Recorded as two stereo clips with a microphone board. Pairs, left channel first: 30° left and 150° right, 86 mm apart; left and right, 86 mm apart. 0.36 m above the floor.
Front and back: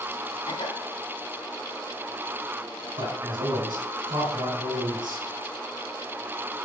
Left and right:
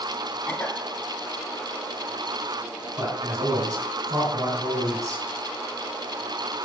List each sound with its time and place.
0.5 s a cough: 20° left, 3 m
3.0 s a man speaking: 130° right, 3 m